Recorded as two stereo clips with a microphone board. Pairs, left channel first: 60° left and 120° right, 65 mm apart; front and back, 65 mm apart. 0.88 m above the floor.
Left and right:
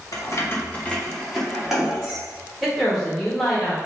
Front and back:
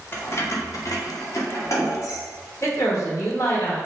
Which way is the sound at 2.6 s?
35° right.